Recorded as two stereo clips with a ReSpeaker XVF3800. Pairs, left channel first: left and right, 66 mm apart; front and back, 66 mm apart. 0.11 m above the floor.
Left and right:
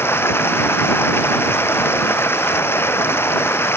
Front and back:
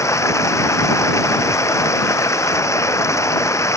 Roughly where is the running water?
Ahead left.